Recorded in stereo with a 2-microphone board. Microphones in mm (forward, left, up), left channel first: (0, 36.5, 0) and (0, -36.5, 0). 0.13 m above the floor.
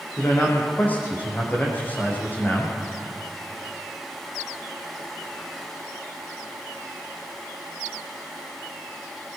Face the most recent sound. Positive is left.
turn(degrees=25)  # may be behind; listen again after turning